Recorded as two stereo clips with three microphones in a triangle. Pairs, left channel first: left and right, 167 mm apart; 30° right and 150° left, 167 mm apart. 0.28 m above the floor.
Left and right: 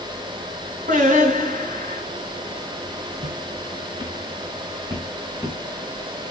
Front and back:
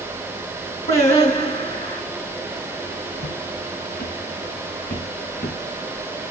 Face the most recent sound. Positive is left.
turn(degrees=-10)